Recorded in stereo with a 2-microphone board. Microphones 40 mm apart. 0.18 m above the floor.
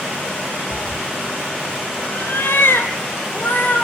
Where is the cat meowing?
45° left (ahead or behind), 0.7 m; by 3.9 s 60° left (ahead or behind), 2.5 m.